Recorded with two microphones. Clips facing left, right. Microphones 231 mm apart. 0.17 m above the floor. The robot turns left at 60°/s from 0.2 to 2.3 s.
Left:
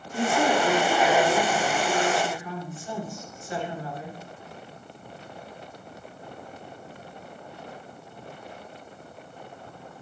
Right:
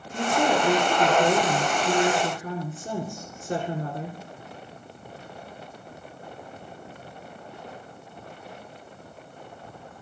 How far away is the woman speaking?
About 2.5 m.